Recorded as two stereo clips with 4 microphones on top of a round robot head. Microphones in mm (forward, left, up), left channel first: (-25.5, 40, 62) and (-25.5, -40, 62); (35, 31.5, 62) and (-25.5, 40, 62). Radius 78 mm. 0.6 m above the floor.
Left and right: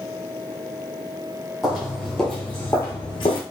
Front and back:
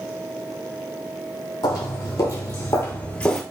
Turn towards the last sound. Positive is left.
turn(degrees=70)